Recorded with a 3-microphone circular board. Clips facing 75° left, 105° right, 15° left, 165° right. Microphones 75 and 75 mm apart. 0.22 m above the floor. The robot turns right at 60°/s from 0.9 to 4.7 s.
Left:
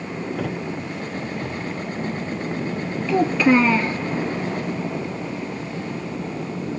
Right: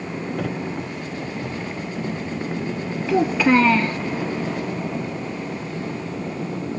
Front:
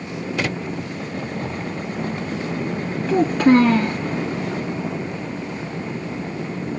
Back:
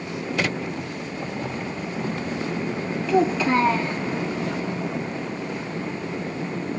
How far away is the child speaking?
About 2.5 m.